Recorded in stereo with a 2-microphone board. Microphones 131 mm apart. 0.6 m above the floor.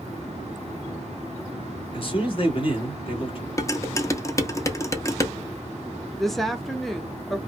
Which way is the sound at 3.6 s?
25° left (ahead or behind).